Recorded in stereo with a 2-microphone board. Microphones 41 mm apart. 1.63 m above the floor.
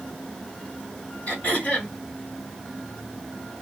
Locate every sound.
1.3 s throat clearing: 35° left (ahead or behind), 1.8 m